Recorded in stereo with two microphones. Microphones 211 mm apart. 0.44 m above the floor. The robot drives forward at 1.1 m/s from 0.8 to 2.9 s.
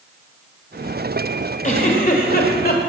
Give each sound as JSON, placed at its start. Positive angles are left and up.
{"t": 1.6, "sound": "a giggle", "side_deg": 40, "distance_m": 2.5}